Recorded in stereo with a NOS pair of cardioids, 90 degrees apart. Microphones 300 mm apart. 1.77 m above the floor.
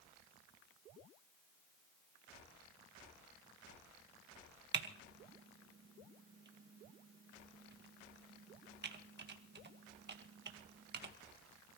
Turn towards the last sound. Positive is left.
turn(degrees=-35)